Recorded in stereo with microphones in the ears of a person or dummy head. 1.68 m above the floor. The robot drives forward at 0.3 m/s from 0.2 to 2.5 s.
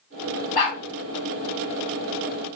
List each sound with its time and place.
0.6 s a dog barking: 35° left (ahead or behind), 1.7 m; by 0.8 s 40° left (ahead or behind), 1.7 m